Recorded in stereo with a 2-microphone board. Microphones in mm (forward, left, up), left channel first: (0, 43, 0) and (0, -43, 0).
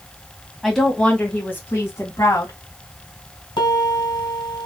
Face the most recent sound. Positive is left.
turn(degrees=60)  # may be behind; listen again after turning